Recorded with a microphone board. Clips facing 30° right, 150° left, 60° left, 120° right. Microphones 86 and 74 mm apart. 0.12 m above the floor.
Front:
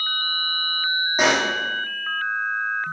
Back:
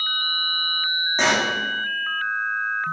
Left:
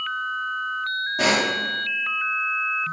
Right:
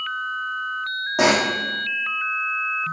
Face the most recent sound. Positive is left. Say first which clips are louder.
# front 1 dB, right 4 dB
turn(degrees=-110)